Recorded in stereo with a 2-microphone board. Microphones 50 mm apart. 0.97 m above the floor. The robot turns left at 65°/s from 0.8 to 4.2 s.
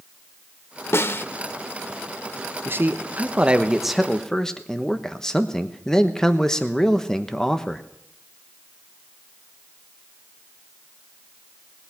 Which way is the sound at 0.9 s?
50° left (ahead or behind).